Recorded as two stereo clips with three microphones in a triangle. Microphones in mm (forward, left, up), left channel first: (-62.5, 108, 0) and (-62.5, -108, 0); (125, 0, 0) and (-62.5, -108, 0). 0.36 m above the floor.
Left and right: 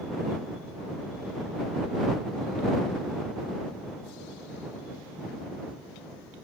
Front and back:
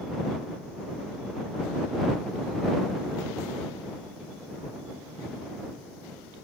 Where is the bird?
I don't hear a bird.